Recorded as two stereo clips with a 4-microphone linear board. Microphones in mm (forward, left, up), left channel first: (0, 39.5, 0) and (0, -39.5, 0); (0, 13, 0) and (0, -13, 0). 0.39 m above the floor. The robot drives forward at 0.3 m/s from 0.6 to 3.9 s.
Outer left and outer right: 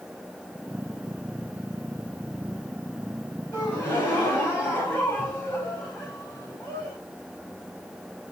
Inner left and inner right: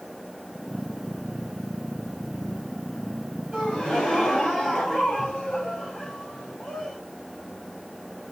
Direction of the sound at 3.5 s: 25° left (ahead or behind).